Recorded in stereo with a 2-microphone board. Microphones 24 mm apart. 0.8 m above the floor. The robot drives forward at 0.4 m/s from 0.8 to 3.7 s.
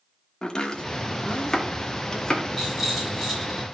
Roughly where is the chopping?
Left.